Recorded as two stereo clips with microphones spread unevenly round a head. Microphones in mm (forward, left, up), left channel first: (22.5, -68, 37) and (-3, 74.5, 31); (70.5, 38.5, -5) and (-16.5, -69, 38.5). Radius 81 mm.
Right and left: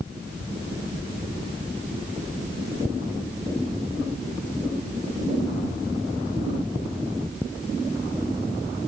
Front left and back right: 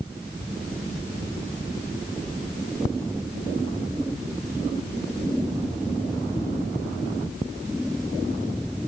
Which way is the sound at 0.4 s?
140° left.